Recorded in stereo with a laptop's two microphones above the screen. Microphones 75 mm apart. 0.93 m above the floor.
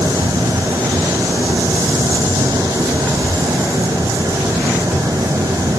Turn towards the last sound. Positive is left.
turn(degrees=-45)  # may be behind; listen again after turning